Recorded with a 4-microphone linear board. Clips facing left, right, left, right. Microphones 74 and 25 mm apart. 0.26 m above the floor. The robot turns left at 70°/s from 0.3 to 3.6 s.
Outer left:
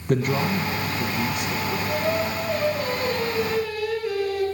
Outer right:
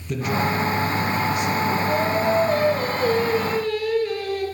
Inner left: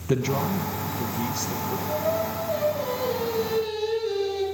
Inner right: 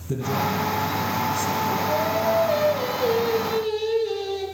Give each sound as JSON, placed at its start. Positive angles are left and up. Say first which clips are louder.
{"t": 0.1, "sound": "a man speaking", "louder": "outer left 1 dB, even", "azimuth_deg": 105, "distance_m": 1.7}
{"t": 1.9, "sound": "singing", "louder": "outer right 3 dB, inner right 2 dB", "azimuth_deg": -65, "distance_m": 5.5}